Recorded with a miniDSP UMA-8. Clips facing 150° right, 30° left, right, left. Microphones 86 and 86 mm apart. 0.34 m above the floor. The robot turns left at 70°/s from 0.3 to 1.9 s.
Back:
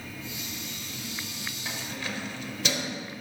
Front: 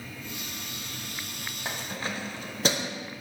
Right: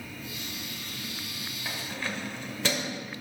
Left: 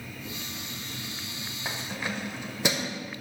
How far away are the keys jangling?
About 0.7 m.